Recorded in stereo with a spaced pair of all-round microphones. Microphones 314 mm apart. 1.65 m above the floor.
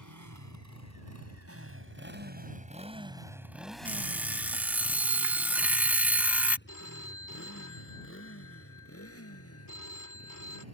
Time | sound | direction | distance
0.0 | a motorcycle | 65° right (ahead or behind) | ?
3.9 | an alarm clock | 5° right (ahead or behind) | ?
6.7 | a phone ringing | 75° left (ahead or behind) | ?